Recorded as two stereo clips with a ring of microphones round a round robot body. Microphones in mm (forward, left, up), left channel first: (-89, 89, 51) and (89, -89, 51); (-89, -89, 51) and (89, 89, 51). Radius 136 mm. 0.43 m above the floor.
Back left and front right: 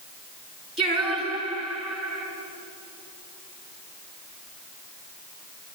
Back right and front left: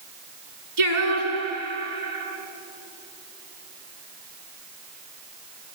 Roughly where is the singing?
Ahead left.